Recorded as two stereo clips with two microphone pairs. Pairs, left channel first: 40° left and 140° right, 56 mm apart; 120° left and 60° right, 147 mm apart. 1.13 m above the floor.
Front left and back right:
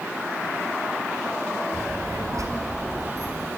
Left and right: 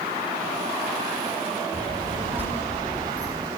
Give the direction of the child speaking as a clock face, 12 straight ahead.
5 o'clock.